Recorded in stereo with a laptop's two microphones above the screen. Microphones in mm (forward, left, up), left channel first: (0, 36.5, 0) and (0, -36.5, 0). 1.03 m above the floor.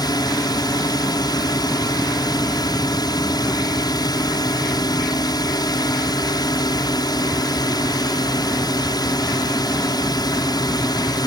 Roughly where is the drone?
Left.